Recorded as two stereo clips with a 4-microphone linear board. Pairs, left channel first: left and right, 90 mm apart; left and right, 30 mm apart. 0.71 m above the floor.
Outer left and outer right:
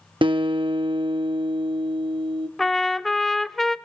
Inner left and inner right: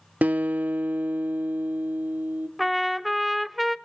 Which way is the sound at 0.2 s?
65° right (ahead or behind).